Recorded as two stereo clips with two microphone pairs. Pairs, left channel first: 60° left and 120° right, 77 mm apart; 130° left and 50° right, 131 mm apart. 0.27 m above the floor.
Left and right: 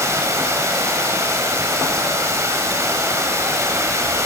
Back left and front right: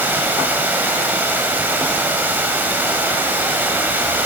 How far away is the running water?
About 1.1 m.